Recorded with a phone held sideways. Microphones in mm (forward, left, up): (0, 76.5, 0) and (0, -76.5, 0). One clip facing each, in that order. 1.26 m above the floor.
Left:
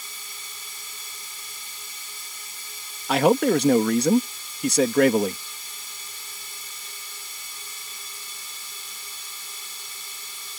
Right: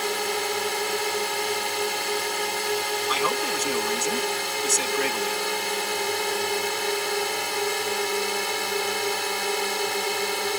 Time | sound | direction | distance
0.0 | a drone | 75° right (ahead or behind) | ?
3.1 | a man speaking | 65° left (ahead or behind) | ?